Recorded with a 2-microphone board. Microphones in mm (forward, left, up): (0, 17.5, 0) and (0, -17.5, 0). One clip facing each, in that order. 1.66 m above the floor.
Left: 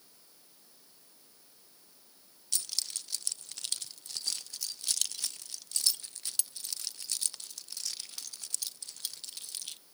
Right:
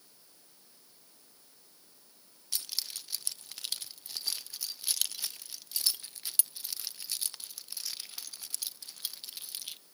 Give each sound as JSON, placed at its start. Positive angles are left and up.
{"t": 2.5, "sound": "keys jangling", "side_deg": -15, "distance_m": 0.5}